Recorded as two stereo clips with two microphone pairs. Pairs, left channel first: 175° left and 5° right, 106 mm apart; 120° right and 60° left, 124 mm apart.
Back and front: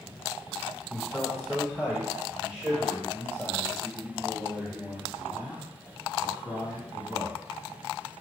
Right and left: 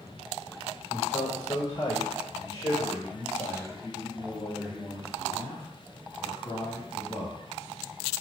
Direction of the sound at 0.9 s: 95° right.